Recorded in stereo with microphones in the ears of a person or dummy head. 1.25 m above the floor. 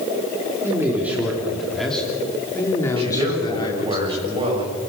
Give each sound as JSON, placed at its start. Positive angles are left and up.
{"t": 0.6, "sound": "a man speaking", "side_deg": -15, "distance_m": 3.5}
{"t": 3.0, "sound": "a man speaking", "side_deg": -25, "distance_m": 6.0}